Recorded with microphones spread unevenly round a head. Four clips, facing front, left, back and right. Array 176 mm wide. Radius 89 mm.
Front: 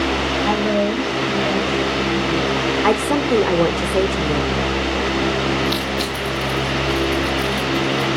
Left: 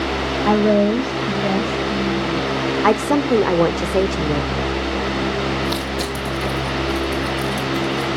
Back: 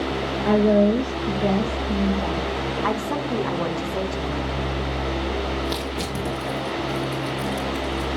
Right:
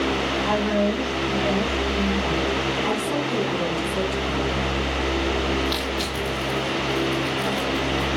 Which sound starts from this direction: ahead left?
A woman speaking, at 2.8 s.